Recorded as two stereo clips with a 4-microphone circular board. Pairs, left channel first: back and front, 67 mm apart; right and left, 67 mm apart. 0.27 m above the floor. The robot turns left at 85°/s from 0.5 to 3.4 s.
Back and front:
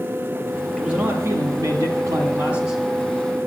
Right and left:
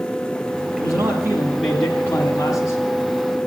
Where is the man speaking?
80° left, 2 m; by 2.8 s 95° right, 2 m.